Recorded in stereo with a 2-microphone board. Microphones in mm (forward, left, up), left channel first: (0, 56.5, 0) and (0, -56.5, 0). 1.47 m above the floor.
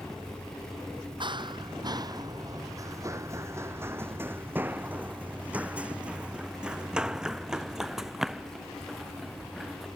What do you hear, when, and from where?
1.2 s running footsteps: 45° right (ahead or behind); by 9.8 s centre (ahead or behind)